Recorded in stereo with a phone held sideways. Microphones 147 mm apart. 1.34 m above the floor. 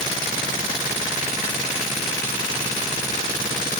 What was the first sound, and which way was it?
Only background noise.